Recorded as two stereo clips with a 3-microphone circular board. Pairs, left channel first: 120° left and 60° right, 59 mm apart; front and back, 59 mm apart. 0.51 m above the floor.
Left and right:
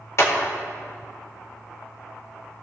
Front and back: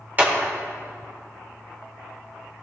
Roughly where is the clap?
Behind left.